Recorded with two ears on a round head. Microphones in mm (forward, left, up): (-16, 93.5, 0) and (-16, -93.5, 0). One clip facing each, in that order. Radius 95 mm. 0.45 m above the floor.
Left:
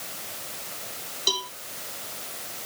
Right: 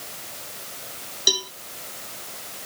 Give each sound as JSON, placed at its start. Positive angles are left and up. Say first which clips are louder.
{"t": 1.3, "sound": "a cowbell", "louder": "right 3 dB", "side_deg": -20}